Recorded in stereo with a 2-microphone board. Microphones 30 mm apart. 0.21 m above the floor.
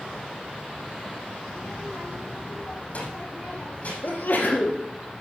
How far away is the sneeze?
About 4 m.